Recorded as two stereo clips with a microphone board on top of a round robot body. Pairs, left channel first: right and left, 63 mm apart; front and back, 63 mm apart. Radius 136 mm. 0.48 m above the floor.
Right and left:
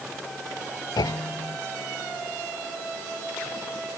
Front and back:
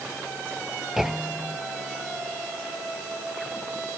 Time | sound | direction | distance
1.0 | a clunk | 95° right | ?